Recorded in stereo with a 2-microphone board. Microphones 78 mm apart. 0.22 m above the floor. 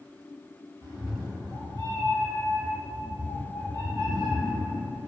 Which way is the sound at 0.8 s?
65° right (ahead or behind).